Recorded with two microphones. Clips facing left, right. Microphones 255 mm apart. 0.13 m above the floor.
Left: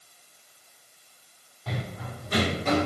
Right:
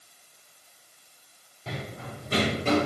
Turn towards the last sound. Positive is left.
turn(degrees=-35)  # may be behind; listen again after turning